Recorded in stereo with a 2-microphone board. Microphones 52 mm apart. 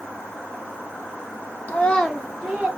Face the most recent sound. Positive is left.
turn(degrees=-25)  # may be behind; listen again after turning